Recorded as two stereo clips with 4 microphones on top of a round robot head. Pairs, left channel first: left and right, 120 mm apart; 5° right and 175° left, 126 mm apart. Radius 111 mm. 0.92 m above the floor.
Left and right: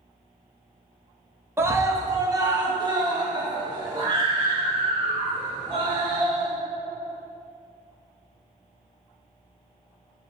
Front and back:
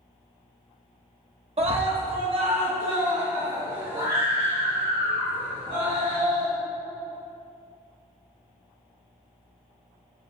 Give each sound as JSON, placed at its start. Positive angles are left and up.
{"t": 1.6, "sound": "a scream", "azimuth_deg": -160, "distance_m": 1.6}